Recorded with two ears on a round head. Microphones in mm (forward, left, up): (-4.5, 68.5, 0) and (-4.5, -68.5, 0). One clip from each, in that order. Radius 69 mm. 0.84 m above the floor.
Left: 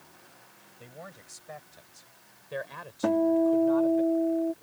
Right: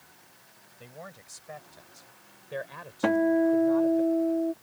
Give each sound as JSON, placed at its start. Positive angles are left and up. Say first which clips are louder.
{"t": 0.8, "sound": "a man speaking", "louder": "right 1 dB", "side_deg": -5}
{"t": 3.0, "sound": "a guitar", "louder": "even", "side_deg": -55}